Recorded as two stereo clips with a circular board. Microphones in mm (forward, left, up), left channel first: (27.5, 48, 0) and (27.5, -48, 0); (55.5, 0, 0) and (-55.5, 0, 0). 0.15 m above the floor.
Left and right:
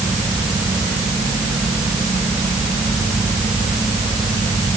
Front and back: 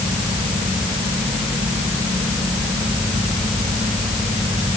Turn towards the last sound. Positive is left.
No sound to turn to.